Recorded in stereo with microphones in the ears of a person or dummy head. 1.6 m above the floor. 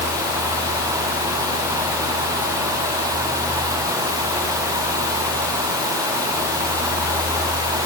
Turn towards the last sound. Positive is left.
No sound to turn to.